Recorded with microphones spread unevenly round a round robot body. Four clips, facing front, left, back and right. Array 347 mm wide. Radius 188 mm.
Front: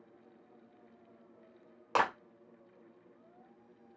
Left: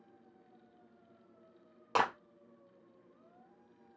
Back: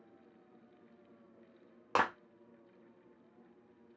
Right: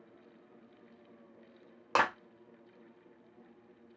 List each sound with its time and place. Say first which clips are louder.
1.9 s a clap: right 2 dB, front 2 dB; 170° right, 0.6 m